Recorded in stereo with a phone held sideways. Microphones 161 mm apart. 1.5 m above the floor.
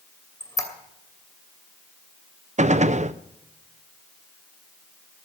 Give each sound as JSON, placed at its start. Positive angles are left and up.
{"t": 0.4, "sound": "a squeak", "side_deg": 20, "distance_m": 2.5}
{"t": 2.6, "sound": "a gunshot", "side_deg": -45, "distance_m": 0.6}